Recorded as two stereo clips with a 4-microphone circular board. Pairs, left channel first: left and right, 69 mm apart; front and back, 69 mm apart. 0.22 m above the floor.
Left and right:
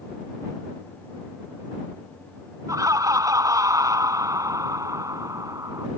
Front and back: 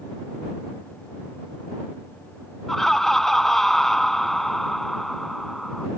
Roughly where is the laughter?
Right.